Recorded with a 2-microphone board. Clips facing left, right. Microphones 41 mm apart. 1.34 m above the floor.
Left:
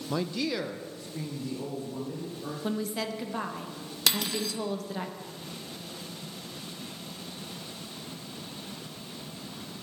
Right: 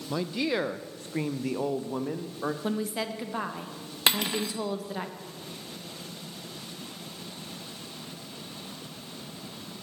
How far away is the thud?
I don't hear a thud.